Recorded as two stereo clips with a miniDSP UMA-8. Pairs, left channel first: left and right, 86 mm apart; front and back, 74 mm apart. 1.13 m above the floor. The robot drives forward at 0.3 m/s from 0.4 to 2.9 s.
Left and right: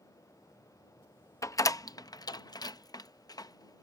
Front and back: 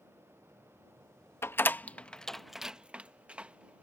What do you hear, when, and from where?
1.4 s a door slam: 50° left; by 3.8 s 110° left